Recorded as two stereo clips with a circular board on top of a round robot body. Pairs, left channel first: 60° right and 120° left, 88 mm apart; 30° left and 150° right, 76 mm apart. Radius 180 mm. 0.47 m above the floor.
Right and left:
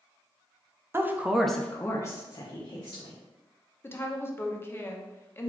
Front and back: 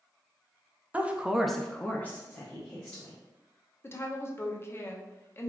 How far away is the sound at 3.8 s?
About 0.8 m.